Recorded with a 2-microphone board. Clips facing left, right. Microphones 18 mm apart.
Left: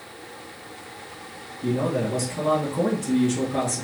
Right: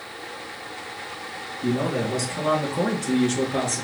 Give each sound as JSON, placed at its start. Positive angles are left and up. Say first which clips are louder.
{"t": 1.6, "sound": "a man speaking", "louder": "even", "side_deg": -25, "distance_m": 1.8}